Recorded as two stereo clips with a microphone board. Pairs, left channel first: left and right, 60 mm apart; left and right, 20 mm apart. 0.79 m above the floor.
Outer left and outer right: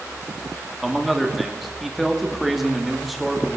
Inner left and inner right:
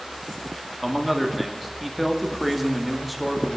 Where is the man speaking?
5° right (ahead or behind), 1.8 m.